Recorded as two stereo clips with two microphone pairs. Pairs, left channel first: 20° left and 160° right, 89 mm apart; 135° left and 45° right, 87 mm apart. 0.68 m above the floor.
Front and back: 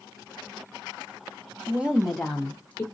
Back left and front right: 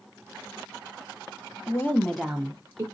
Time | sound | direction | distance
1.7 | a woman speaking | 145° left | 0.9 m